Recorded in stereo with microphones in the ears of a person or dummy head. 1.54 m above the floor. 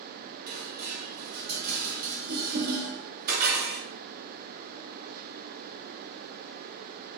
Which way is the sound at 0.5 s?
50° right (ahead or behind).